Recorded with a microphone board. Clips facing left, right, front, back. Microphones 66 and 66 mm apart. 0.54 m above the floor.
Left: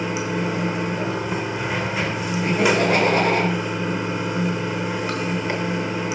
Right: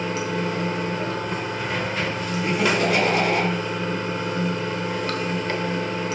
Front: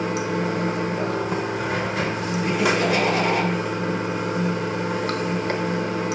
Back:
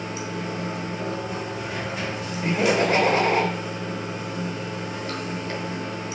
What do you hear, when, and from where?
0.0 s running water: 15° left, 1.0 m
2.4 s laughter: 135° left, 2.5 m